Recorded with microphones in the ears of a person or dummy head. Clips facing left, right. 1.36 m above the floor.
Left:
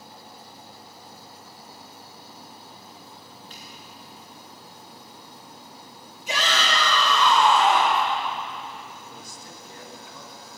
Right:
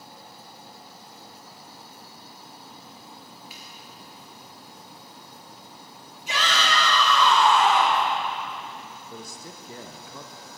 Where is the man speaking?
60° right (ahead or behind), 0.7 m.